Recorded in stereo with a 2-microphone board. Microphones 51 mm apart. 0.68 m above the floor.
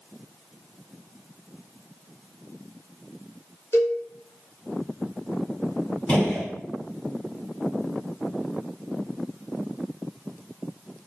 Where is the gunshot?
30° left (ahead or behind), 1.6 m.